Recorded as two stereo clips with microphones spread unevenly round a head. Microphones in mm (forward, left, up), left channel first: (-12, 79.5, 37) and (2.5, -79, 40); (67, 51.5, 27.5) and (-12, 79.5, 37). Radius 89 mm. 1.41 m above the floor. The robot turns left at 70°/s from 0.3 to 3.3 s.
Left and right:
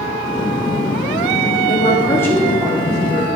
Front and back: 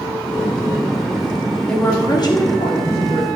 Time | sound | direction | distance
1.7 | a woman speaking | 55° left | 3 m